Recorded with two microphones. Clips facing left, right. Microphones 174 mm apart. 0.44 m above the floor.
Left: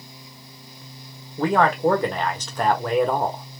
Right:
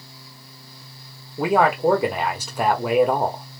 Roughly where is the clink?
No clink in this recording.